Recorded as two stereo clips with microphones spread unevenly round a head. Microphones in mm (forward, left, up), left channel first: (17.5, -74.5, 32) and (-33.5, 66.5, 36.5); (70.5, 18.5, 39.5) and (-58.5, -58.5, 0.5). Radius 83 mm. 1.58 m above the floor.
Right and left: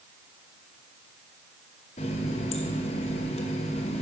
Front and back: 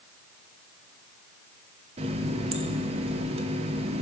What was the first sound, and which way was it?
A running tap, 100° right.